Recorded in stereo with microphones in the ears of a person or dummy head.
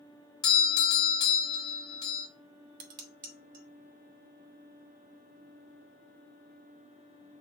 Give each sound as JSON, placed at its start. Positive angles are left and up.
{"t": 0.4, "sound": "a doorbell", "side_deg": 30, "distance_m": 1.2}
{"t": 2.8, "sound": "dishes clattering", "side_deg": -55, "distance_m": 1.2}